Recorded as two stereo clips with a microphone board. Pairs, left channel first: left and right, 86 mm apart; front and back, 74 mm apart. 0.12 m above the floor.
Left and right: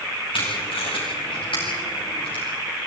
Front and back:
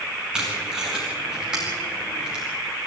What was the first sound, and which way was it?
Tape being pulled, 100° left.